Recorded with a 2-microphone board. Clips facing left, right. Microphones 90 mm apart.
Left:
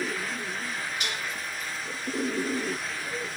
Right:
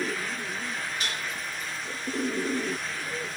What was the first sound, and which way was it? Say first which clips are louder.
Dishes clattering: even; 35° right (ahead or behind).